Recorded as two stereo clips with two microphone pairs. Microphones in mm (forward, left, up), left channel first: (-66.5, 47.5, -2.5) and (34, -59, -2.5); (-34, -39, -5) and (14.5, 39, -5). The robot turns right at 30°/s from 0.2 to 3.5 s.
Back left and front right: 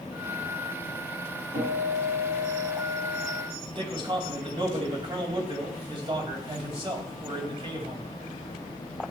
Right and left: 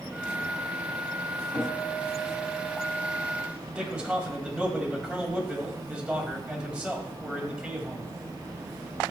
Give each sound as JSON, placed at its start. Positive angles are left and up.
{"t": 1.5, "sound": "a guitar", "azimuth_deg": -75, "distance_m": 5.5}
{"t": 3.7, "sound": "a man speaking", "azimuth_deg": -10, "distance_m": 2.0}